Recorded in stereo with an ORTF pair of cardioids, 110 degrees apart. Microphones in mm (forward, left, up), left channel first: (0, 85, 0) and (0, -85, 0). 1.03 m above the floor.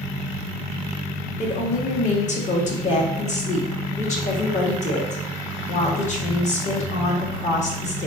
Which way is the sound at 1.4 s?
45° left.